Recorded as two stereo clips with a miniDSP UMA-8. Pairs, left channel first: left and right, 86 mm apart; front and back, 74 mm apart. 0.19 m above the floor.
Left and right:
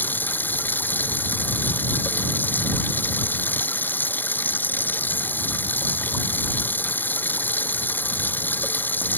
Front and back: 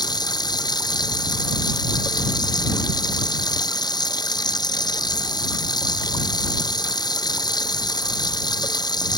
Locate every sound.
0.0 s running water: 20° left